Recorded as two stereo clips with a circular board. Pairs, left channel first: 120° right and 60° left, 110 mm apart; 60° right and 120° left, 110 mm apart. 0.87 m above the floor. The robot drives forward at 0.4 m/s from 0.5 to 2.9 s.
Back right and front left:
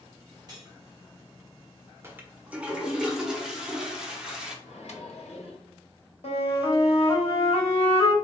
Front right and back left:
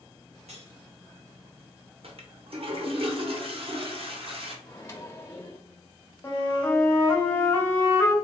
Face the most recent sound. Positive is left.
turn(degrees=-130)